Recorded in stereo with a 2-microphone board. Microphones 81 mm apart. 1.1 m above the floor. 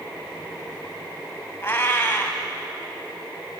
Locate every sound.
1.6 s a cat meowing: 25° left (ahead or behind), 1.3 m